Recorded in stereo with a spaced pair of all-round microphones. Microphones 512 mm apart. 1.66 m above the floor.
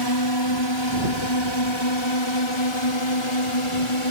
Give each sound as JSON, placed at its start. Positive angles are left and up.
{"t": 0.0, "sound": "a drone", "side_deg": 50}